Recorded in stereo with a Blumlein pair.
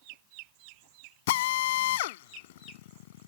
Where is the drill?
55° left.